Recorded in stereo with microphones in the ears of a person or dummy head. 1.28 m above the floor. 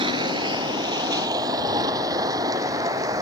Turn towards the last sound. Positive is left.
turn(degrees=-20)  # may be behind; listen again after turning